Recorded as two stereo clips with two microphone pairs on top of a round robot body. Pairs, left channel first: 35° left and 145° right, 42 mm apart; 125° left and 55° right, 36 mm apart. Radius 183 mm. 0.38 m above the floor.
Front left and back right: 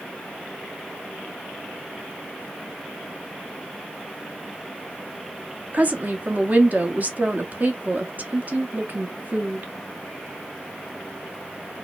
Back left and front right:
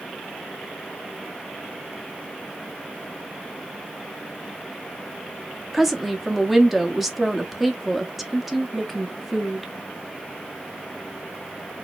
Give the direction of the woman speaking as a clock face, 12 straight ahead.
5 o'clock.